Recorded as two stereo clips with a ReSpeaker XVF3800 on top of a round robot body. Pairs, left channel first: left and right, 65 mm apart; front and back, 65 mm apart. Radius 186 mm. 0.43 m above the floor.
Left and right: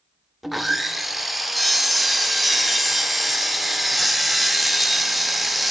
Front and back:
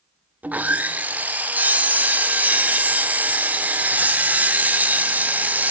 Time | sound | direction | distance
0.4 | sawing | 175° right | 0.9 m